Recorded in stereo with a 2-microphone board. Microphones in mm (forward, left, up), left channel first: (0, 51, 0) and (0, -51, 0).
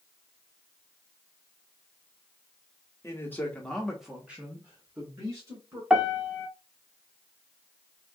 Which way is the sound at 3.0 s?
25° left (ahead or behind).